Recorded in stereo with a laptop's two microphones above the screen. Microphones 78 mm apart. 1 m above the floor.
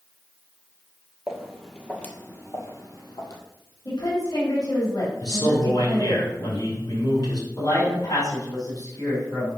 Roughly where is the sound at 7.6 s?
Left.